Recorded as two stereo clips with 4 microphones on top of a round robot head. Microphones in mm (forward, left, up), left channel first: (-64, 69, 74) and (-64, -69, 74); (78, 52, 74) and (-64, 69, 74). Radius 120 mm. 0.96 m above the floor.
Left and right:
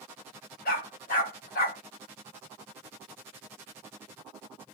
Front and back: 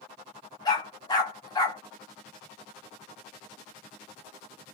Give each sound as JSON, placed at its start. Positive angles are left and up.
{"t": 0.7, "sound": "a dog barking", "azimuth_deg": 55, "distance_m": 1.3}